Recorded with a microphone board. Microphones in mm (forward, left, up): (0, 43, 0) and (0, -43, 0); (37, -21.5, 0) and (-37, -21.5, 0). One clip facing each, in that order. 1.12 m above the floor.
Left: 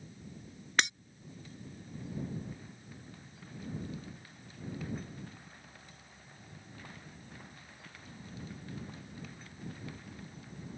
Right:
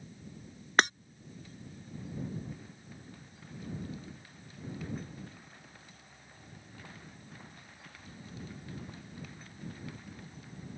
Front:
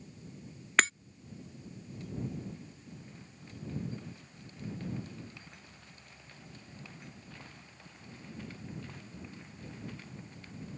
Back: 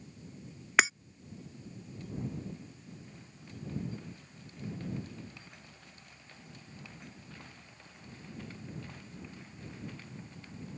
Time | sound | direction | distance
0.8 | breaking glass | 105° right | ?